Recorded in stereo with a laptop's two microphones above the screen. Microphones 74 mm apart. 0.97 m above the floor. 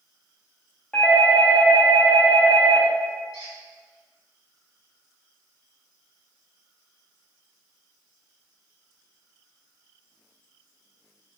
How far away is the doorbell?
About 0.7 m.